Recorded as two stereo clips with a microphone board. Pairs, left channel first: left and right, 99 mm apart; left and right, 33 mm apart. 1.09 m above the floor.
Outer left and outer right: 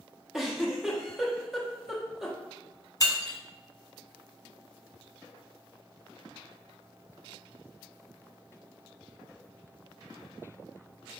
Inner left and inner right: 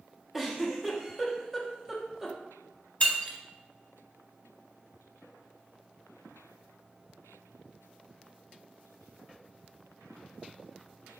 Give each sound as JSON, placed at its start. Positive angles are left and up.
{"t": 0.3, "sound": "a giggle", "side_deg": -5, "distance_m": 0.8}
{"t": 3.0, "sound": "breaking glass", "side_deg": 35, "distance_m": 0.9}